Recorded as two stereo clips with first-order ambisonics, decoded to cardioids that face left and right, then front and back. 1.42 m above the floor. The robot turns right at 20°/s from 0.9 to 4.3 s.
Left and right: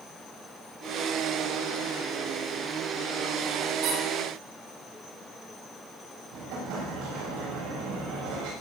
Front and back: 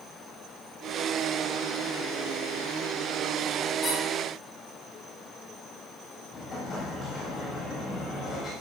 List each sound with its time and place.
3.8 s a squeak: 75° right, 8 m; by 4.0 s 70° right, 8 m
6.3 s an explosion: 70° right, 8.5 m